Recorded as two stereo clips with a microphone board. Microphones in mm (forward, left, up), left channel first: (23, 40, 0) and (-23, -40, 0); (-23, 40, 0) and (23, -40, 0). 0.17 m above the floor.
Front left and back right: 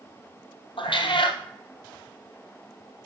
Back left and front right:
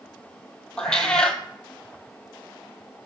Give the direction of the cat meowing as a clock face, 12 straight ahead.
11 o'clock.